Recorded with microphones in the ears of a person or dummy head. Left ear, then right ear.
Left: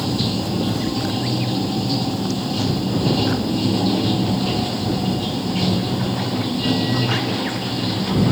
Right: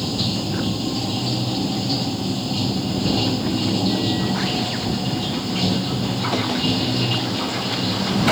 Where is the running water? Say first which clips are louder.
Left 1 dB; centre (ahead or behind).